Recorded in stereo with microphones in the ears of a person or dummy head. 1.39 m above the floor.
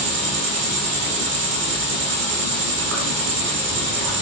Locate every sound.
0.0 s an insect: 55° right (ahead or behind), 1.3 m